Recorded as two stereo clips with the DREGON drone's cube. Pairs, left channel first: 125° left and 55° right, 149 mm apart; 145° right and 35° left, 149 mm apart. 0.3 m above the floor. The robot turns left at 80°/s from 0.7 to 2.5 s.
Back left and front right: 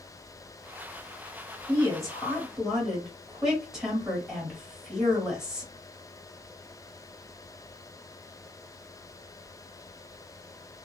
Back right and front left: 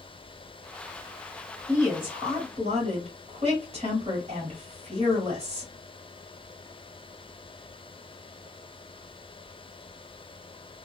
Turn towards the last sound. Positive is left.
turn(degrees=30)